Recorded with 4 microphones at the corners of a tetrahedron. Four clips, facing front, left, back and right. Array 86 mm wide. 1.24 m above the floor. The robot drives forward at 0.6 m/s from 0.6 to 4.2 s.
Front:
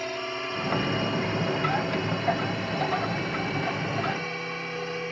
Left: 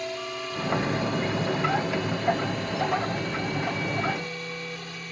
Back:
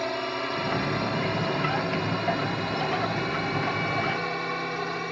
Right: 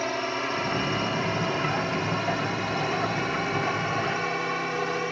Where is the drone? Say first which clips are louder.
Right 5 dB, back 3 dB; 120° right.